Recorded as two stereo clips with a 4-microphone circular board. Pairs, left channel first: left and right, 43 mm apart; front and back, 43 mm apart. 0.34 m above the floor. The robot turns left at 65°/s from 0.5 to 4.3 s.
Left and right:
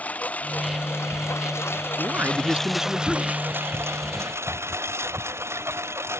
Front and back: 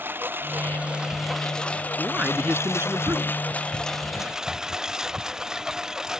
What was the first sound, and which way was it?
A lawn mower, 145° left.